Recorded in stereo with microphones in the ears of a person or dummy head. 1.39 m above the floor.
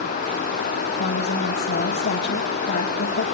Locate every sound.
1.0 s a woman speaking: 50° left (ahead or behind), 2 m